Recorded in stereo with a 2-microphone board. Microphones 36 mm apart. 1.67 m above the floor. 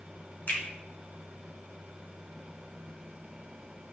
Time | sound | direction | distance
0.5 | a finger snap | 60° left (ahead or behind) | 1.2 m